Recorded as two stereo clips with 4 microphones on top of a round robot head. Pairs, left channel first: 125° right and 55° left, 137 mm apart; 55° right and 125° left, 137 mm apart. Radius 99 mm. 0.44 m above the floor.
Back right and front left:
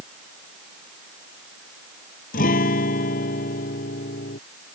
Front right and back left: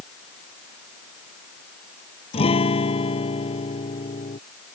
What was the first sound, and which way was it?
A guitar, 105° right.